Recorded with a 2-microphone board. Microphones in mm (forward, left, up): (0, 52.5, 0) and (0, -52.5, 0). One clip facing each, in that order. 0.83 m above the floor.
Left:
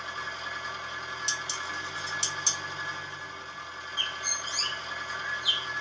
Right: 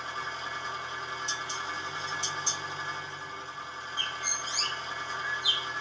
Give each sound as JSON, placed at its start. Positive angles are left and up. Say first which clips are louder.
{"t": 0.0, "sound": "an engine running", "louder": "right 1 dB", "side_deg": -35, "distance_m": 1.5}
{"t": 1.3, "sound": "dishes clattering", "louder": "right 1 dB", "side_deg": 75, "distance_m": 0.5}
{"t": 4.0, "sound": "a bird", "louder": "even", "side_deg": 50, "distance_m": 1.0}